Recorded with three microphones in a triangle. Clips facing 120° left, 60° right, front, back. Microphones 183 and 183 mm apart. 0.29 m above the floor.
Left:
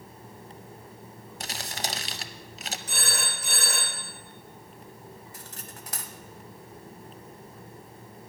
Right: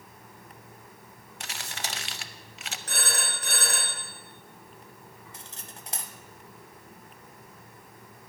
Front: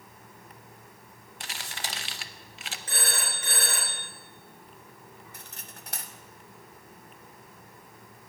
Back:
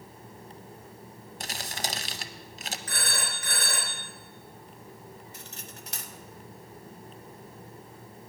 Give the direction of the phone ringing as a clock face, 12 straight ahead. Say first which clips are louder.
Right 2 dB, front 3 dB; 2 o'clock.